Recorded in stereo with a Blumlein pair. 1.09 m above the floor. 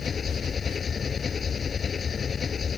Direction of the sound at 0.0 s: 20° left.